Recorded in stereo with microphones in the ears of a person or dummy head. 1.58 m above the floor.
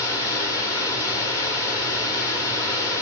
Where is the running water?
25° left (ahead or behind), 1.3 m.